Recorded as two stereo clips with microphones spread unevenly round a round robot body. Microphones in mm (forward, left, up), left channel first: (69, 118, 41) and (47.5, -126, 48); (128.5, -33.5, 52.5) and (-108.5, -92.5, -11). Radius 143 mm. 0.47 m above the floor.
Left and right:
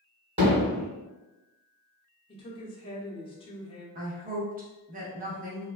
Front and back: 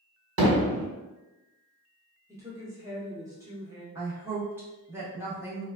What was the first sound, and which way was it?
Hammering, 165° right.